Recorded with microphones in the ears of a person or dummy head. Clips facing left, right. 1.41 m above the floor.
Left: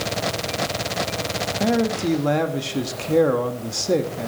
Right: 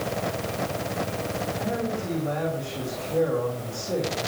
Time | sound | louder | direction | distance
1.6 | a man speaking | left 11 dB | 80° left | 2 m